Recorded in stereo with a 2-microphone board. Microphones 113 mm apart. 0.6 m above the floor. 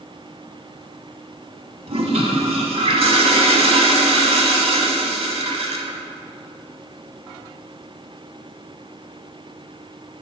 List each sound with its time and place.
1.9 s a toilet flushing: 65° right (ahead or behind), 0.8 m